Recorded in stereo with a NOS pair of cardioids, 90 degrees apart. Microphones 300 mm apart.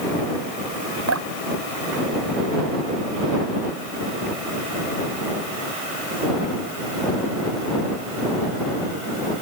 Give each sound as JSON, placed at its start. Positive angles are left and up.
{"t": 1.1, "sound": "dripping", "azimuth_deg": -55}